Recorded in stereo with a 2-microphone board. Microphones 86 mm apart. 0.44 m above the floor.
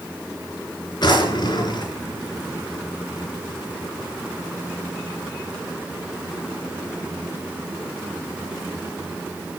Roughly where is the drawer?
Left.